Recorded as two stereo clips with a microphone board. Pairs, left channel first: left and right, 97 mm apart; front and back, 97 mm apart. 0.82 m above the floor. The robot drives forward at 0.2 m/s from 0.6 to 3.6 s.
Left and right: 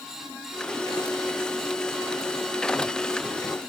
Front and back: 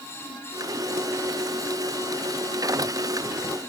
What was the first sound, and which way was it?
Only background noise.